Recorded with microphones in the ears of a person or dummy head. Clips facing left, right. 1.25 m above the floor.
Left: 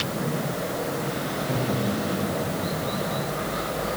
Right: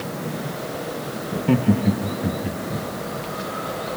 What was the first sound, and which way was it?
Laughter, 80° right.